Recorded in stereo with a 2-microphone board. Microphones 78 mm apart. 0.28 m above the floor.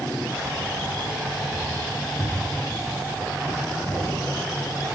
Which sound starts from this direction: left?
Keys jangling, at 0.3 s.